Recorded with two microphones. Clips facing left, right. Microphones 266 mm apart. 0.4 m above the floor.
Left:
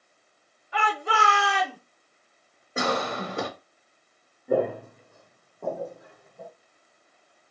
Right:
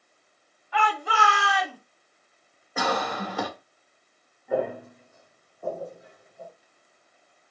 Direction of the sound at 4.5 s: 35° left (ahead or behind).